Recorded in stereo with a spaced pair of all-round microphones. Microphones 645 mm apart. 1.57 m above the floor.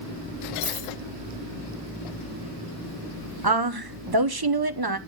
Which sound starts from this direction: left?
A dropped coin, at 0.6 s.